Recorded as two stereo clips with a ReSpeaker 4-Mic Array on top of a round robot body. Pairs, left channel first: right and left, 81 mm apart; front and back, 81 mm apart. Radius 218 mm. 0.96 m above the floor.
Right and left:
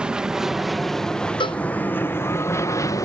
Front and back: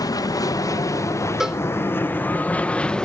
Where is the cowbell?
95° right.